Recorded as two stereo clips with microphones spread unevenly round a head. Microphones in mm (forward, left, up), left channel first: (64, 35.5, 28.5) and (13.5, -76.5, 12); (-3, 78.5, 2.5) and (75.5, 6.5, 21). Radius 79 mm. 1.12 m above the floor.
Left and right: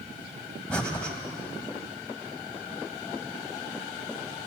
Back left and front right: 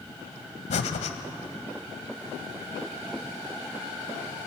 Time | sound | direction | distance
0.7 | breathing | 140° left | 1.4 m